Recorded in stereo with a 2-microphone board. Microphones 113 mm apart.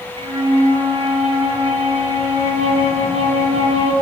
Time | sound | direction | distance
0.2 | a flute | 60° right (ahead or behind) | 0.6 m